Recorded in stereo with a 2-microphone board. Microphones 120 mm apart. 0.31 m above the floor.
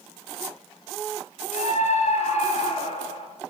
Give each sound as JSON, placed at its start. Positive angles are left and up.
{"t": 1.5, "sound": "a scream", "side_deg": 75, "distance_m": 4.5}